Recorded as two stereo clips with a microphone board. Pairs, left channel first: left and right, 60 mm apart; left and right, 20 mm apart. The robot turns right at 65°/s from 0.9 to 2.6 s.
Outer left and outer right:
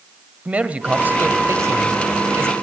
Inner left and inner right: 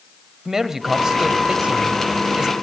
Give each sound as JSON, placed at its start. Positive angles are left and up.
{"t": 0.5, "sound": "a man speaking", "azimuth_deg": -150, "distance_m": 1.8}